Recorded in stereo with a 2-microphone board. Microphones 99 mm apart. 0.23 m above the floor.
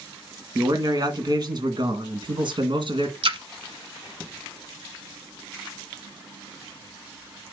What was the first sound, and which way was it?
A man speaking, 40° right (ahead or behind).